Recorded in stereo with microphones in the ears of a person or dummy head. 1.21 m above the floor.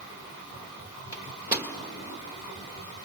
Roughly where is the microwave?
Centre.